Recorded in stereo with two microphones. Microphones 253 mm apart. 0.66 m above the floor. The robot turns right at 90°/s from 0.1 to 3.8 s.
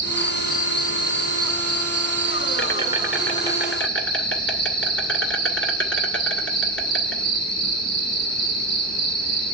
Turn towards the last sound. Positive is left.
turn(degrees=55)